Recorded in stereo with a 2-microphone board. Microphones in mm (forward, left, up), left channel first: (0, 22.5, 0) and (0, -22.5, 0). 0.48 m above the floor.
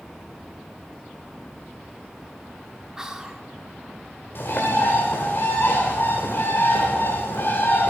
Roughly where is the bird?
Left.